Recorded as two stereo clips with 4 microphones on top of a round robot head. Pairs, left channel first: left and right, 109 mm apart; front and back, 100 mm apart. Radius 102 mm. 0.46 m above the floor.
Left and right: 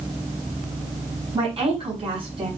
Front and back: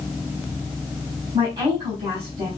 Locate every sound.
1.3 s a woman speaking: 125° right, 6 m